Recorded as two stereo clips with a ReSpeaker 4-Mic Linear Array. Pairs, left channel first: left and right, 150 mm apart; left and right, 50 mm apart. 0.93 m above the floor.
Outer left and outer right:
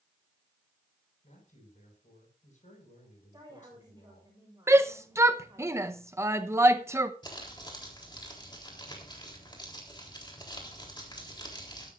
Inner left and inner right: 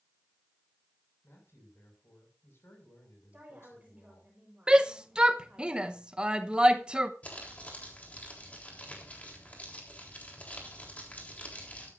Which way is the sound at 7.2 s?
30° left (ahead or behind).